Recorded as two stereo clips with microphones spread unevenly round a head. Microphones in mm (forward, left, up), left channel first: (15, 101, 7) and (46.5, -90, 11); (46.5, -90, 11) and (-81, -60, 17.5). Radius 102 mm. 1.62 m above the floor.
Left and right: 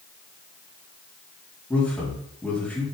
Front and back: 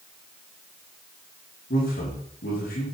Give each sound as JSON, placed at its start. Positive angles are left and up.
{"t": 1.7, "sound": "a man speaking", "azimuth_deg": 15, "distance_m": 4.5}